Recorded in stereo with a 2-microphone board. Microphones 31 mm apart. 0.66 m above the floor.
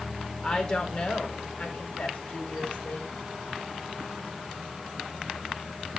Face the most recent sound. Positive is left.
turn(degrees=55)  # may be behind; listen again after turning